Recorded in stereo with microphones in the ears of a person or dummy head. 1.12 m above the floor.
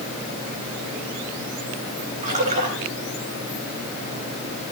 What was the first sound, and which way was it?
A splash, 45° right (ahead or behind).